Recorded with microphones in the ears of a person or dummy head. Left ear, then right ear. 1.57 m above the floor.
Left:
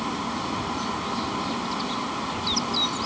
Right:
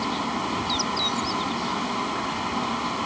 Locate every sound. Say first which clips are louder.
0.0 s a fan: right 2 dB; 15° right (ahead or behind)